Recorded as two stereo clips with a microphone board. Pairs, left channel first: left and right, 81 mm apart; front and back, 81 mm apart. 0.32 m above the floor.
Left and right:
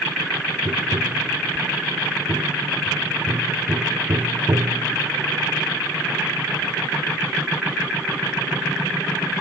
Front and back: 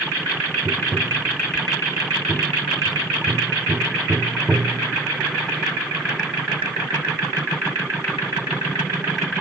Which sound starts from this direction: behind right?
Tapping, at 0.7 s.